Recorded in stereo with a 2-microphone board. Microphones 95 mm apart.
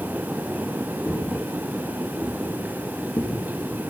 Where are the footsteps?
20° left (ahead or behind), 6.5 m; by 3.9 s 40° left (ahead or behind), 5.5 m.